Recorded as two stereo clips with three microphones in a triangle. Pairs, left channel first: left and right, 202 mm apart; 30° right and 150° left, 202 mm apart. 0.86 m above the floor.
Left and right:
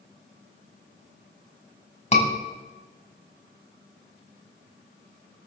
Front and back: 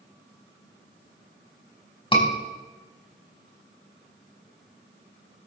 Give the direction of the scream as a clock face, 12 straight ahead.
11 o'clock.